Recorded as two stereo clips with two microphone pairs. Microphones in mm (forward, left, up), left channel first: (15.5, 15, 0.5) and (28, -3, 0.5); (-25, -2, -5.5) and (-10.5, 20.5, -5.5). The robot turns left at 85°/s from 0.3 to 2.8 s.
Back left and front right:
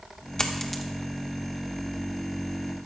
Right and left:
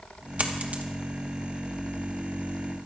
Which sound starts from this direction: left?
A dropped coin, at 0.4 s.